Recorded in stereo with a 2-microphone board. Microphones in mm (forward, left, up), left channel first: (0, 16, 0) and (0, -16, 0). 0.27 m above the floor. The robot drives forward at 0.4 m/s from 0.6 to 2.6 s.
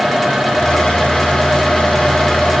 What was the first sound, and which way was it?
Only background noise.